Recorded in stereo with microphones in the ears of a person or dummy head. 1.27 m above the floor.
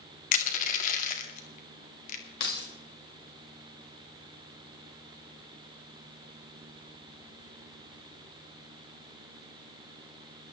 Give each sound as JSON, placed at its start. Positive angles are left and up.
{"t": 0.3, "sound": "crushing", "side_deg": 45, "distance_m": 2.0}
{"t": 2.4, "sound": "keys jangling", "side_deg": 70, "distance_m": 2.5}